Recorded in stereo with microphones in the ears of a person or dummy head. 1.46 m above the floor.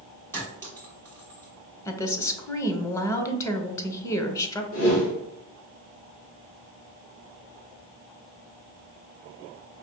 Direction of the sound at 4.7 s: 85° left.